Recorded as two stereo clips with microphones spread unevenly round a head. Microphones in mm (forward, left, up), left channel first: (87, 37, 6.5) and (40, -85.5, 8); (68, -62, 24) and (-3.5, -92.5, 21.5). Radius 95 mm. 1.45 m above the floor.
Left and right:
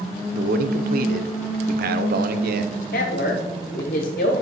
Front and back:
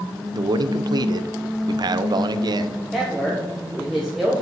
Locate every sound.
0.3 s a man speaking: 120° right, 0.6 m
2.9 s a man speaking: 115° left, 0.7 m